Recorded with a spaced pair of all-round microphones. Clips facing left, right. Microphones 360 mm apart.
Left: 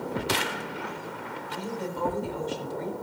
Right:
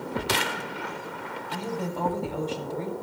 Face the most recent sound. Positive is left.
turn(degrees=-65)  # may be behind; listen again after turning